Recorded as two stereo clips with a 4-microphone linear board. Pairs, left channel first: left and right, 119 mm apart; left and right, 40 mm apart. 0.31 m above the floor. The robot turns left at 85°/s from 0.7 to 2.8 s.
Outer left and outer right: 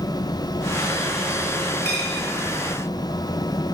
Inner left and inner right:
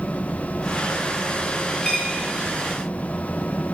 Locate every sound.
1.8 s a dropped coin: 25° left (ahead or behind), 2.5 m; by 2.3 s 60° left (ahead or behind), 2.5 m